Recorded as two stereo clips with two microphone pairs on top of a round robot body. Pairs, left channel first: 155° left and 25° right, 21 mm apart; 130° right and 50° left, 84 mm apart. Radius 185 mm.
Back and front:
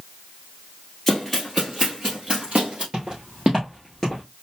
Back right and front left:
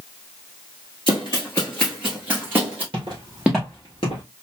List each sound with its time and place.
1.1 s running footsteps: 125° right, 1.1 m; by 2.8 s 15° right, 1.4 m
2.9 s footsteps: 15° left, 1.2 m; by 4.2 s 125° right, 1.3 m